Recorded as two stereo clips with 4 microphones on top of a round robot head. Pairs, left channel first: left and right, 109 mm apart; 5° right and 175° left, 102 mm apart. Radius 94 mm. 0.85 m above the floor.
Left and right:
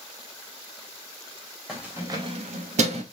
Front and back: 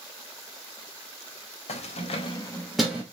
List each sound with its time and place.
1.7 s keys jangling: 5° right, 0.9 m; by 3.0 s 105° right, 1.0 m